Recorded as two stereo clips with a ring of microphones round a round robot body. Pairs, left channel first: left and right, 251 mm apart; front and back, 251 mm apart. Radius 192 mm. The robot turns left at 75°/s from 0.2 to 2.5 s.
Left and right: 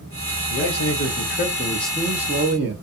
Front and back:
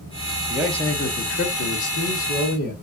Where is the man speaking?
105° left, 0.9 m; by 2.8 s 45° right, 0.9 m.